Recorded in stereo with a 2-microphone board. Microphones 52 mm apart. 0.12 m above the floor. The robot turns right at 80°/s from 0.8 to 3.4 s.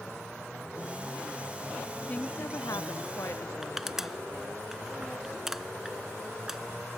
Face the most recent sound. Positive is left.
turn(degrees=-5)  # may be behind; listen again after turning